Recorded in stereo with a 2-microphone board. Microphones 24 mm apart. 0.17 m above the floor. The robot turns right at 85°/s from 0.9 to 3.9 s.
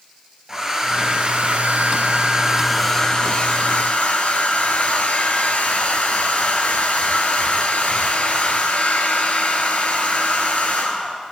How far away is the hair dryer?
About 1.4 m.